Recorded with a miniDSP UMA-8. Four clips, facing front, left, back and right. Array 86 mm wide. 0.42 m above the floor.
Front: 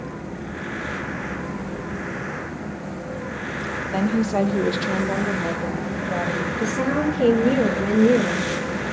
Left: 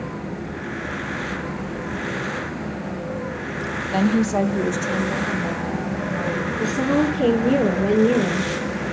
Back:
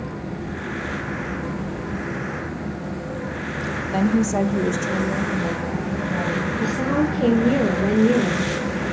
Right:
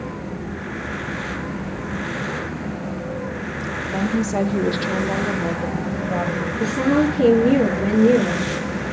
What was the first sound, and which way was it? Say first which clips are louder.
A woman speaking: left 3 dB, back 1 dB; 90° left.